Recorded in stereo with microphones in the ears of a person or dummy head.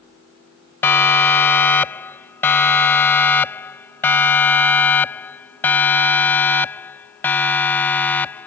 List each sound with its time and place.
0.8 s a siren: 15° left (ahead or behind); by 8.5 s 10° left (ahead or behind)